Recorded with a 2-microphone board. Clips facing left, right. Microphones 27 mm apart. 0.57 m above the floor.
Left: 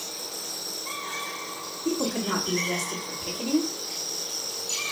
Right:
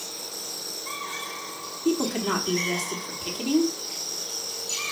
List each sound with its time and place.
1.9 s a woman speaking: 55° right (ahead or behind), 1.2 m